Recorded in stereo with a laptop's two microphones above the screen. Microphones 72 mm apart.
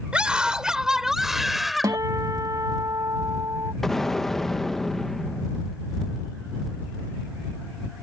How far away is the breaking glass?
I don't hear breaking glass.